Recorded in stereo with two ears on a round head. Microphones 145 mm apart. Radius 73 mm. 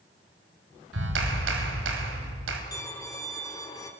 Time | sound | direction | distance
0.9 | a clap | 80° right | 3 m
2.7 | a violin | 20° left (ahead or behind) | 2 m